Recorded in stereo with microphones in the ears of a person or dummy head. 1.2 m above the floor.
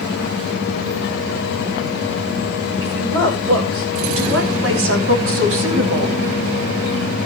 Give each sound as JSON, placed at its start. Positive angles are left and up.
{"t": 2.8, "sound": "a woman speaking", "side_deg": -85, "distance_m": 5.5}